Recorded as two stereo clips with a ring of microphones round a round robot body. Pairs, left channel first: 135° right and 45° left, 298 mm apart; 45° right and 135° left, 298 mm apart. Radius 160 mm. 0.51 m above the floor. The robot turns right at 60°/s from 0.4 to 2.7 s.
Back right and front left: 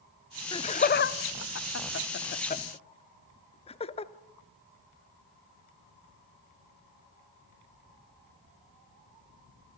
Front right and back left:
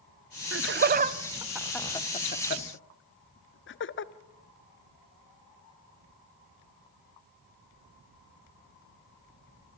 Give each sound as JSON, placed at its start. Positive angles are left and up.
{"t": 0.5, "sound": "laughter", "azimuth_deg": 155, "distance_m": 0.8}